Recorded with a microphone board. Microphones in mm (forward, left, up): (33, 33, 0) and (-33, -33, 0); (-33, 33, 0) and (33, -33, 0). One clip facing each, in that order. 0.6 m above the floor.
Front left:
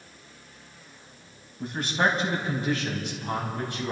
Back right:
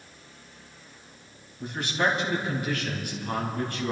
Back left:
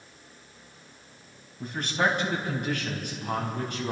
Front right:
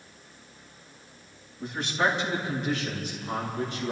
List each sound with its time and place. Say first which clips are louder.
1.6 s a man speaking: front left 1 dB, even; 90° left, 4 m; by 3.9 s 120° left, 4 m